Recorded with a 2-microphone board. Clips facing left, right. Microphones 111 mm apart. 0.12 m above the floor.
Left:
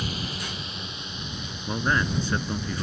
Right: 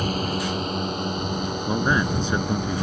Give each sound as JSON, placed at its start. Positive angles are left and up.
{"t": 0.0, "sound": "a drone", "side_deg": -55}
{"t": 1.7, "sound": "a man speaking", "side_deg": -20}